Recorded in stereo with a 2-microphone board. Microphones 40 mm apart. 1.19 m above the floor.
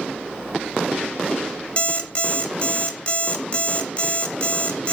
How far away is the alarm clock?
About 0.7 m.